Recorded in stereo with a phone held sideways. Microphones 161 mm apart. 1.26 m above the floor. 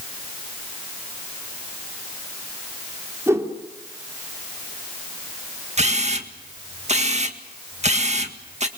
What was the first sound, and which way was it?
A whoosh, 15° right (ahead or behind).